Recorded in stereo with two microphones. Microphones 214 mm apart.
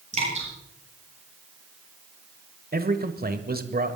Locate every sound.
0.1 s dripping: 35° right (ahead or behind), 8.5 m
2.7 s a man speaking: 45° right (ahead or behind), 1.3 m